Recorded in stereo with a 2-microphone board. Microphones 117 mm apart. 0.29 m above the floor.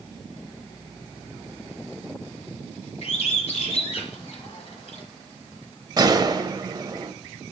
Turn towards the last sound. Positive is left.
turn(degrees=-35)  # may be behind; listen again after turning